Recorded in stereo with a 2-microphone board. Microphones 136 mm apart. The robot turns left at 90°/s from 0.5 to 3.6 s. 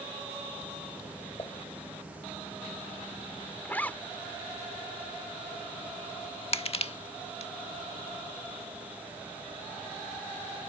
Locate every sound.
1.4 s dishes clattering: 35° left (ahead or behind); by 1.6 s 20° left (ahead or behind)
3.6 s a zipper: 15° left (ahead or behind)
6.5 s crushing: 45° left (ahead or behind)